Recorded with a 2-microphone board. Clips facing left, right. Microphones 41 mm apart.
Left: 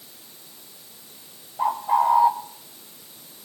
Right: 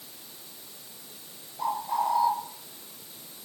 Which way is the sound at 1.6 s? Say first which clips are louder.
Left 7 dB; 50° left (ahead or behind).